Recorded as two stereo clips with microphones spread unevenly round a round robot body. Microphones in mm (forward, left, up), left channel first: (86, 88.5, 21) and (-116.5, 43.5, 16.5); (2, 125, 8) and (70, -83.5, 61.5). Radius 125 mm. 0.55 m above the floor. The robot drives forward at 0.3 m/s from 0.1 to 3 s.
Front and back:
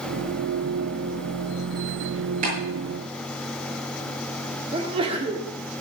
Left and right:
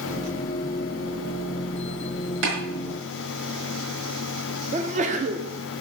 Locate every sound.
2.4 s tapping: 110° right, 6 m
4.7 s a sneeze: 125° right, 1.2 m